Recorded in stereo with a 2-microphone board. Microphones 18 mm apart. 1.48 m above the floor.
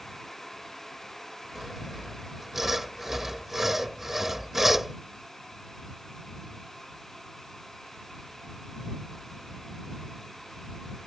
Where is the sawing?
15° right (ahead or behind).